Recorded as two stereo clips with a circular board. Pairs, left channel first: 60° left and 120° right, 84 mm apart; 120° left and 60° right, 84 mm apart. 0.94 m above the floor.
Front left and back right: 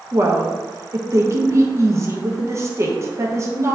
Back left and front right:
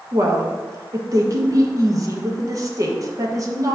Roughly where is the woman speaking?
Right.